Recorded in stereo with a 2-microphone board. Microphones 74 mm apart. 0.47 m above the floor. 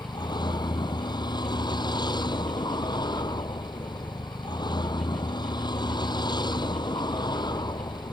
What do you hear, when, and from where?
0.0 s a vehicle: 80° left